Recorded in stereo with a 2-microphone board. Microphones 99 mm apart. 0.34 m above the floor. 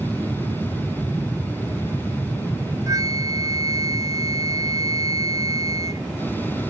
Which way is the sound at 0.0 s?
20° left (ahead or behind).